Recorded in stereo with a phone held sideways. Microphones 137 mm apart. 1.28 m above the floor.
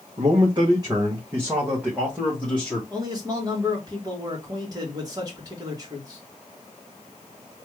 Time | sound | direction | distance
0.2 | a man speaking | 45° right (ahead or behind) | 1.3 m
2.9 | a man speaking | 25° right (ahead or behind) | 1.9 m